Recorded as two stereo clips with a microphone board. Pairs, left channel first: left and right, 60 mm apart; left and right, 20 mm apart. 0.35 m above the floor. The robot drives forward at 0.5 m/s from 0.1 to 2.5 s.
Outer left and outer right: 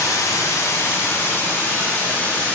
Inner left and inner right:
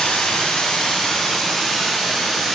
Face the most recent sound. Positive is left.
turn(degrees=25)  # may be behind; listen again after turning